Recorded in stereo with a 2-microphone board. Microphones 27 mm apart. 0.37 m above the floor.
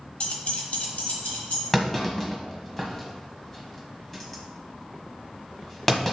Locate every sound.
0.2 s keys jangling: 50° left (ahead or behind), 0.9 m; by 1.6 s 80° left, 2.5 m
1.7 s a clunk: 10° left (ahead or behind), 1.3 m